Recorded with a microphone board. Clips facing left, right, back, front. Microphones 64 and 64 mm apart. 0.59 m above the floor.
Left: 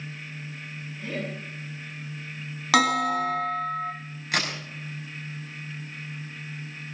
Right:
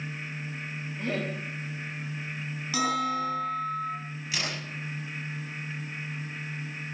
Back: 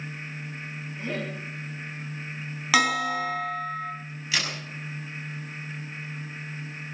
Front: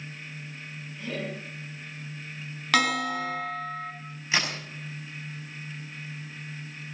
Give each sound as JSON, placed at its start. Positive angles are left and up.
{"t": 1.0, "sound": "laughter", "azimuth_deg": -115, "distance_m": 4.5}
{"t": 2.7, "sound": "a bell", "azimuth_deg": 95, "distance_m": 3.0}
{"t": 4.3, "sound": "a crack", "azimuth_deg": 60, "distance_m": 5.0}